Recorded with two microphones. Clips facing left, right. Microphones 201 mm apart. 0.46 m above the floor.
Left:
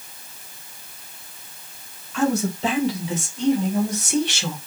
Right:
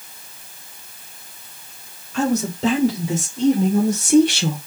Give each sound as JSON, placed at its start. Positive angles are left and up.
{"t": 2.1, "sound": "a man speaking", "side_deg": -40, "distance_m": 2.0}